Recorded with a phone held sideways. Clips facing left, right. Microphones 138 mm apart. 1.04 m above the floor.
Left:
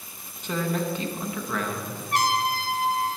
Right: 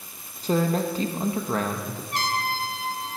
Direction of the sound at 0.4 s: 35° right (ahead or behind).